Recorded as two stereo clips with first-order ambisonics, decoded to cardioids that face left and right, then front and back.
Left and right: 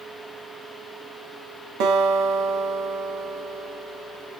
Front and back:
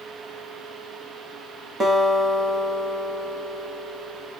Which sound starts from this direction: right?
A guitar, at 1.8 s.